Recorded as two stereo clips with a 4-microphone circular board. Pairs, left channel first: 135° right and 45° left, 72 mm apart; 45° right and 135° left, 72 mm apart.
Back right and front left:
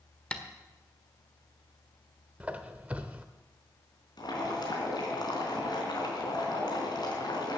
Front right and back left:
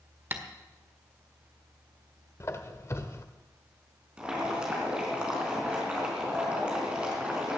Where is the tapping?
165° left, 1.5 m.